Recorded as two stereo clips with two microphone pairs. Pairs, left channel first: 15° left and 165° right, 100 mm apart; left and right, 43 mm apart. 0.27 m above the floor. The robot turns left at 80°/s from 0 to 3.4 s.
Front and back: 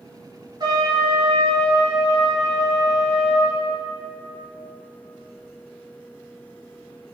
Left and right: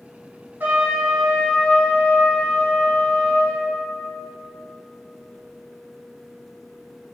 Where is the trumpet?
130° right, 2.5 m; by 3.6 s 10° left, 2.5 m.